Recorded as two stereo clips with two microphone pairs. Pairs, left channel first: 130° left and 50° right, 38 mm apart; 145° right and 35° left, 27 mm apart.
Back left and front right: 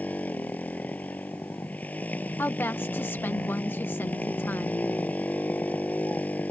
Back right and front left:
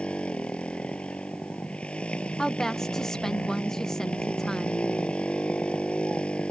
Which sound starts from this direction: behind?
A motorcycle, at 0.0 s.